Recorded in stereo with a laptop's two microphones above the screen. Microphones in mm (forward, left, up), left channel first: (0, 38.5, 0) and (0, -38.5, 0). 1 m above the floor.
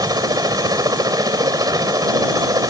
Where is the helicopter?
55° right (ahead or behind).